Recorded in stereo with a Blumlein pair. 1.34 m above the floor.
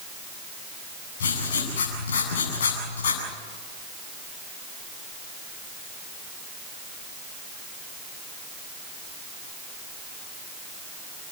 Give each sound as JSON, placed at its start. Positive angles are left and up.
{"t": 1.2, "sound": "writing", "azimuth_deg": 60, "distance_m": 8.0}